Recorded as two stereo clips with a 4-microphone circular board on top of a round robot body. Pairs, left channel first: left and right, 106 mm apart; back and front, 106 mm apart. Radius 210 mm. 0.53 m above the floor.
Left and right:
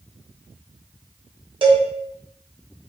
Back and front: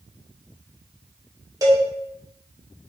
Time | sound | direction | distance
1.6 | a cowbell | 55° right | 1.4 m